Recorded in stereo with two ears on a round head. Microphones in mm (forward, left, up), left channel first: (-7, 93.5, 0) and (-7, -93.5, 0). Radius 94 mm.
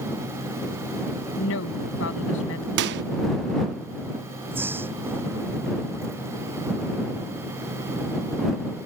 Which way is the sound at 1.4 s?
65° left (ahead or behind).